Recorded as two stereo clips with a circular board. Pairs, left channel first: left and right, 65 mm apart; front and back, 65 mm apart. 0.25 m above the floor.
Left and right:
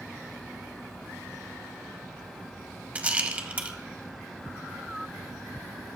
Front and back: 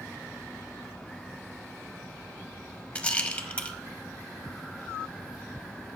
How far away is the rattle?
About 0.7 m.